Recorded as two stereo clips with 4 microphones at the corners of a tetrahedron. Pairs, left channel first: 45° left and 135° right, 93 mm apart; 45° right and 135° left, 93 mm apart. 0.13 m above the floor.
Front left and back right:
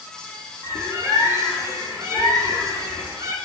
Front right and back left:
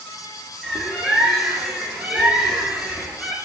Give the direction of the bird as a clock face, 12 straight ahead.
5 o'clock.